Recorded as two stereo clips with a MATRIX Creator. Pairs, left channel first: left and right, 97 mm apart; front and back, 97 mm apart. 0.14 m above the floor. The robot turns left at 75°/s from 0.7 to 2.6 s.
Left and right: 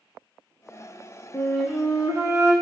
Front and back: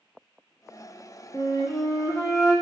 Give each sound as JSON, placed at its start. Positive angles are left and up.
{"t": 1.3, "sound": "a flute", "azimuth_deg": 25, "distance_m": 1.3}